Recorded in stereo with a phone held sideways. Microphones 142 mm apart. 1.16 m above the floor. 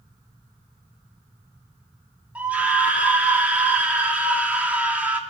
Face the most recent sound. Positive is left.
turn(degrees=-10)  # may be behind; listen again after turning